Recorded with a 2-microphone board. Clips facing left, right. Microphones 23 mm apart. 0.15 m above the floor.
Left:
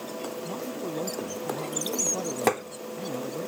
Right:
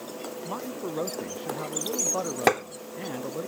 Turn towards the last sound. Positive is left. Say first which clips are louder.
# right 3 dB
turn(degrees=-25)  # may be behind; listen again after turning